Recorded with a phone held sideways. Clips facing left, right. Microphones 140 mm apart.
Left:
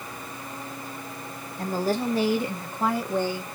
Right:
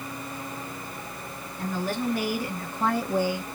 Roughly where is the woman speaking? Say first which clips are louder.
Left 3 dB; left.